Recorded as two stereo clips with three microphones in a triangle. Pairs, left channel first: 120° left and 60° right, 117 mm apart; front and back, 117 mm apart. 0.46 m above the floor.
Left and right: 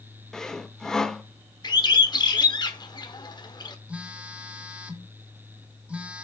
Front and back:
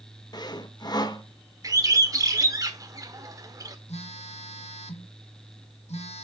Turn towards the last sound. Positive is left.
turn(degrees=20)